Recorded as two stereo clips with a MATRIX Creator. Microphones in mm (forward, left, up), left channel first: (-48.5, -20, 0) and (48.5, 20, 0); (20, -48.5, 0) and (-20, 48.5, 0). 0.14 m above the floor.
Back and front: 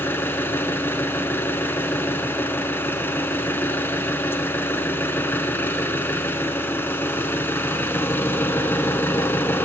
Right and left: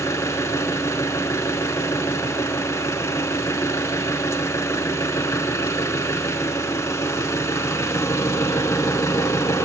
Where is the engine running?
105° right, 0.7 m.